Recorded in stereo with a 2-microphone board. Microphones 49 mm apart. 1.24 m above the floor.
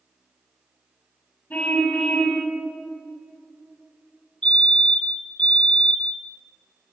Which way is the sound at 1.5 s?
30° left (ahead or behind).